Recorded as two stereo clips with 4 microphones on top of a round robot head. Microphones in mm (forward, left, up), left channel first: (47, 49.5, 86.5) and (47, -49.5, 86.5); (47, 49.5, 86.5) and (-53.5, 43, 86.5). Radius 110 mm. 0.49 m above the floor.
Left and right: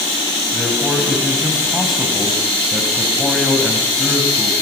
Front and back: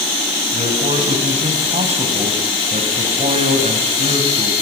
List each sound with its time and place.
0.5 s a man speaking: straight behind, 4 m